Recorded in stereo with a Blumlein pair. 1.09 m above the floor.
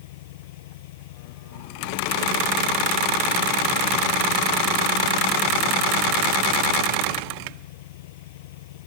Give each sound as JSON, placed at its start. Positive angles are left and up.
{"t": 0.0, "sound": "an engine running", "azimuth_deg": 50}